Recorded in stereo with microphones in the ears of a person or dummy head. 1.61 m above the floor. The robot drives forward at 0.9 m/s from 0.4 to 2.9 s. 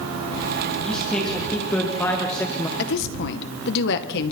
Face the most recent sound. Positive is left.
turn(degrees=60)  # may be behind; listen again after turning